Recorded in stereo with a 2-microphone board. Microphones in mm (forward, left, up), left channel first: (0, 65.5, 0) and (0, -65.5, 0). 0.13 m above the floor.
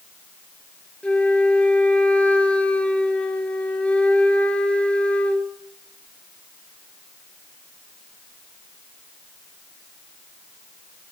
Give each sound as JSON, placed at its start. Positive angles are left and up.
{"t": 1.0, "sound": "a flute", "side_deg": 10, "distance_m": 0.6}